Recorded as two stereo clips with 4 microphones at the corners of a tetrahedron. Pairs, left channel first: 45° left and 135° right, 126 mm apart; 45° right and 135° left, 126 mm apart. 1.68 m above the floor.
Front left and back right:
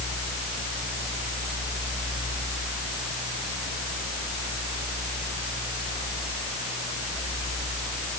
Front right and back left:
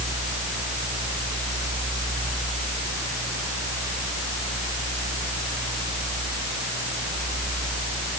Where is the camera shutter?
No camera shutter in this recording.